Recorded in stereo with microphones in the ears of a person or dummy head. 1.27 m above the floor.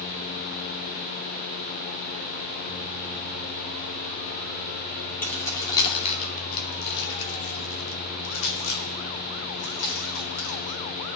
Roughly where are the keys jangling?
Centre.